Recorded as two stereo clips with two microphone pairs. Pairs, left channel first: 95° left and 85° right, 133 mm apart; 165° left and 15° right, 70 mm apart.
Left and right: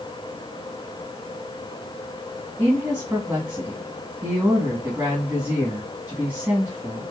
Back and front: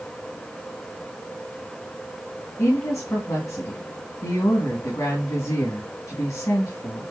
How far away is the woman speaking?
About 2 m.